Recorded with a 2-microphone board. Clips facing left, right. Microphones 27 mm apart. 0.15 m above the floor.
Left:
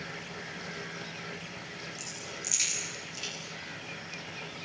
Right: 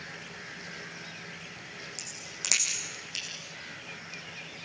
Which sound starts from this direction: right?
A crack, at 2.0 s.